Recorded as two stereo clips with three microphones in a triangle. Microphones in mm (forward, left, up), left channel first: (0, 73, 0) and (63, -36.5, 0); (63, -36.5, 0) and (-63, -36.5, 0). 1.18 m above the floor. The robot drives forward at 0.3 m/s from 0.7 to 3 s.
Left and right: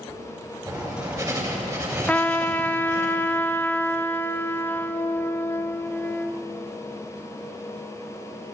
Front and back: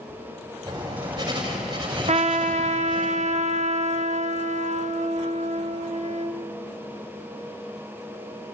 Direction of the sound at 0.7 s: 120° right.